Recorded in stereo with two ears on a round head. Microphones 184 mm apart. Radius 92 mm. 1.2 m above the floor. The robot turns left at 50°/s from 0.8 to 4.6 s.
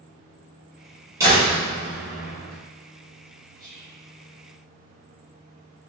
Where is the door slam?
15° right, 1.6 m; by 2.5 s 80° right, 1.6 m.